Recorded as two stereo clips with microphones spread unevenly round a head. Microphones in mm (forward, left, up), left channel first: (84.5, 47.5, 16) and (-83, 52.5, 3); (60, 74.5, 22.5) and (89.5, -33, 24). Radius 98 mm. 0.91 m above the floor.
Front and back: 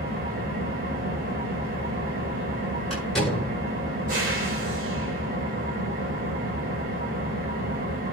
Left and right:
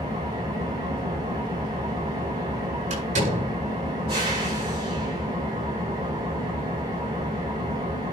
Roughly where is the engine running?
Behind right.